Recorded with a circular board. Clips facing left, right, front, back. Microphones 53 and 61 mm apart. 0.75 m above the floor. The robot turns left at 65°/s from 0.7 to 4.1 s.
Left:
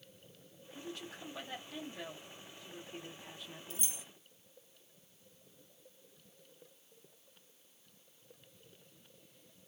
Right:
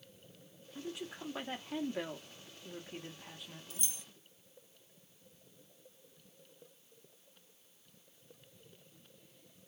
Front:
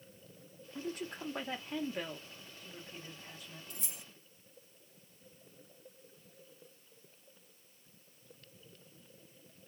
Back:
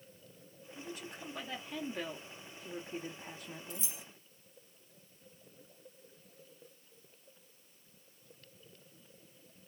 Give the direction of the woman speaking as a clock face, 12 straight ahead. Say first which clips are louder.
Right 3 dB, front 5 dB; 12 o'clock.